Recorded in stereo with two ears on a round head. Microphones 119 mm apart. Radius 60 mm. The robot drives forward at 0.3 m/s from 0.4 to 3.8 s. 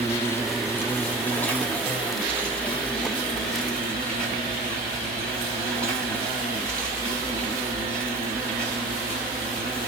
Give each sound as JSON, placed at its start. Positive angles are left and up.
{"t": 0.0, "sound": "an insect", "side_deg": 20, "distance_m": 0.7}